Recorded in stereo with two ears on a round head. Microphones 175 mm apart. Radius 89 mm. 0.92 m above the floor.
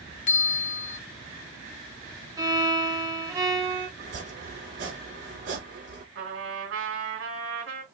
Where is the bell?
40° left (ahead or behind), 0.8 m.